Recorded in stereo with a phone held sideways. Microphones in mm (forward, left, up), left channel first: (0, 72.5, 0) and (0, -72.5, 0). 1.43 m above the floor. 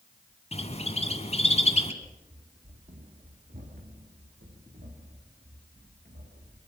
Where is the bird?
45° left (ahead or behind), 2 m.